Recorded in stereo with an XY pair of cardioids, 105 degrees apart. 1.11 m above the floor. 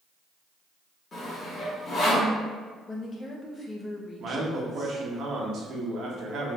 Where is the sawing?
45° left, 1.5 m.